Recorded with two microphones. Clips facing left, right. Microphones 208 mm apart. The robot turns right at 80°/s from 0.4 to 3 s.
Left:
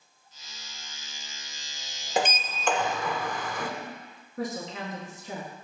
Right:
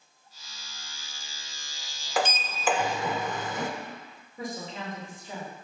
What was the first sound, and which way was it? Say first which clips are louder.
A sliding door: left 1 dB; 145° left.